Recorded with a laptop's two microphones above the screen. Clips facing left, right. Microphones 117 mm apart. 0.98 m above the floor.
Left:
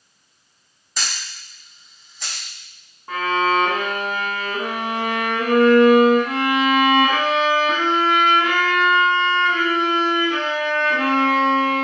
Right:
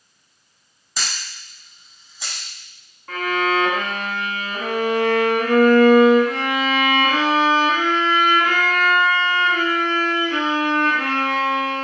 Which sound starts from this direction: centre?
A camera shutter, at 1.0 s.